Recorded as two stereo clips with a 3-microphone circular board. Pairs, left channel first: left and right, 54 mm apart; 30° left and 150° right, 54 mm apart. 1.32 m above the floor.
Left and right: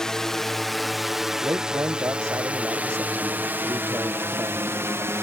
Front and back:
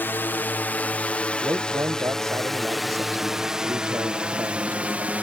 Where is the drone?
15° left; by 5.2 s 95° right.